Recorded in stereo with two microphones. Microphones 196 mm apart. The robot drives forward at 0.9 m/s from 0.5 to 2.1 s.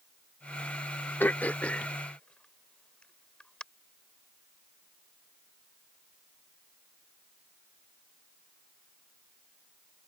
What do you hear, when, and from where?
1.2 s throat clearing: 10° left (ahead or behind); by 3.6 s 5° left (ahead or behind)